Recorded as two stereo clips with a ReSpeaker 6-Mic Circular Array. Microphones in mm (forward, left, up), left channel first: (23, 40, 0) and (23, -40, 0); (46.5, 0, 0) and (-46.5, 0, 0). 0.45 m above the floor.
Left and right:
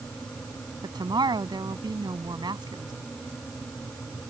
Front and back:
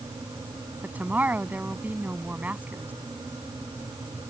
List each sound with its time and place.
0.8 s a woman speaking: 110° right